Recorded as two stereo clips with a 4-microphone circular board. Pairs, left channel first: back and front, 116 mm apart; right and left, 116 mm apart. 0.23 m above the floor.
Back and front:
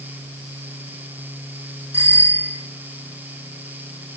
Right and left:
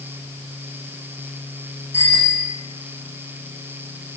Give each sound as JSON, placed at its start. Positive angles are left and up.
{"t": 1.9, "sound": "a bicycle bell", "azimuth_deg": -70, "distance_m": 8.0}